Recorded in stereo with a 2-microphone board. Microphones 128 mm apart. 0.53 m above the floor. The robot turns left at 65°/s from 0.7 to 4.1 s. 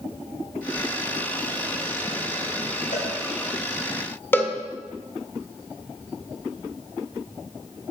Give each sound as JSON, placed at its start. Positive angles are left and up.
{"t": 2.9, "sound": "a cowbell", "side_deg": 75, "distance_m": 5.0}
{"t": 4.3, "sound": "a cowbell", "side_deg": 15, "distance_m": 1.5}